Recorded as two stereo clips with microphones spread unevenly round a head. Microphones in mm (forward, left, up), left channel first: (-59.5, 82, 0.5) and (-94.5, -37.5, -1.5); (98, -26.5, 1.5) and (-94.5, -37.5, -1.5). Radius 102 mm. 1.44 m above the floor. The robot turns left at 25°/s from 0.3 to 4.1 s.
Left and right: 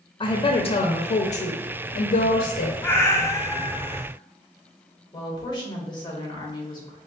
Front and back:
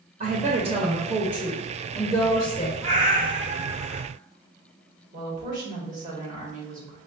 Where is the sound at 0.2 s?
125° left, 0.5 m; by 2.7 s 65° left, 0.5 m.